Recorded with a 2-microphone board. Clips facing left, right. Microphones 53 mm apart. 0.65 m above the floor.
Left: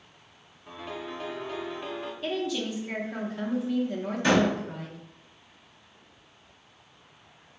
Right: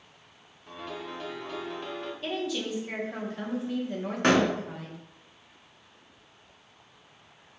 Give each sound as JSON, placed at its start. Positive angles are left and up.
{"t": 0.7, "sound": "a piano", "side_deg": 10, "distance_m": 0.6}
{"t": 2.2, "sound": "a woman speaking", "side_deg": 0, "distance_m": 0.6}
{"t": 4.2, "sound": "a door slam", "side_deg": -55, "distance_m": 1.0}